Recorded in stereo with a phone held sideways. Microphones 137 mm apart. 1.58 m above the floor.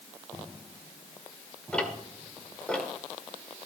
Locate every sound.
1.7 s ticking: 5° left (ahead or behind), 1.7 m